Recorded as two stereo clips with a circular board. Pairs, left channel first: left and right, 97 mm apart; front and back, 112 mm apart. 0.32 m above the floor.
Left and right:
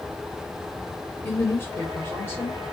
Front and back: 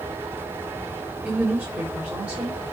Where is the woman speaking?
115° left, 1.1 m.